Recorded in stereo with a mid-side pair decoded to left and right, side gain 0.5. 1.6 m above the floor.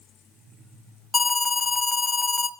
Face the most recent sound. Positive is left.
turn(degrees=25)